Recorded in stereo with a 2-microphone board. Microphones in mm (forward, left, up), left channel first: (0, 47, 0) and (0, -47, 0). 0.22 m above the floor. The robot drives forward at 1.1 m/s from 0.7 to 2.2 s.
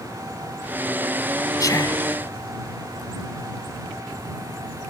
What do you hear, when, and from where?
1.6 s whispering: 40° left (ahead or behind); by 2.0 s 45° left (ahead or behind)